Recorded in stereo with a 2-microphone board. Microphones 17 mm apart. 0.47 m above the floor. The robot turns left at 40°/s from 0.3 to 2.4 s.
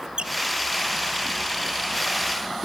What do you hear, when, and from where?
0.2 s a squeak: 85° right; by 0.3 s 80° right